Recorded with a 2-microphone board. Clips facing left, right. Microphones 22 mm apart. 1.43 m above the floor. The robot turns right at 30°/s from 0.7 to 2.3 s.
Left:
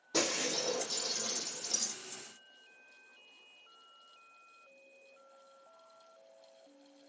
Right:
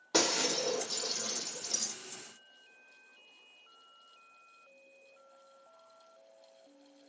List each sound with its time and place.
0.1 s breaking glass: 75° right, 4 m; by 1.9 s 40° right, 4 m